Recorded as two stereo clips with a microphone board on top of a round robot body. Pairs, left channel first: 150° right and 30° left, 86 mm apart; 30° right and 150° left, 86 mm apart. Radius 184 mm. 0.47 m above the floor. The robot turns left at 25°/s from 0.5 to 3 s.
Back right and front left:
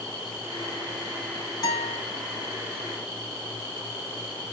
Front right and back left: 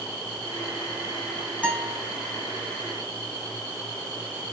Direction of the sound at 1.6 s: 105° right.